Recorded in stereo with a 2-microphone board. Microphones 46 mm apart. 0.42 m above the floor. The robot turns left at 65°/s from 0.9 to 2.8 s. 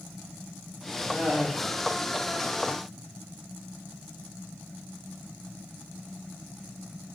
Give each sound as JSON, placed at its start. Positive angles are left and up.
{"t": 1.1, "sound": "laughter", "side_deg": -20, "distance_m": 0.8}